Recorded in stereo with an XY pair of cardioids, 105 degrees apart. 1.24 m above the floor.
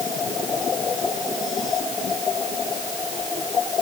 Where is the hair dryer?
I don't hear a hair dryer.